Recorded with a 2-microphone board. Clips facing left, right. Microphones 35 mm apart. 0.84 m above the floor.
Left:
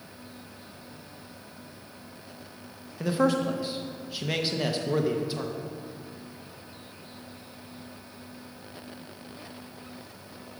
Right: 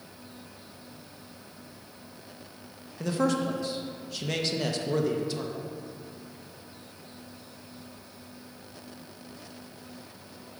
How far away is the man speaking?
About 0.7 m.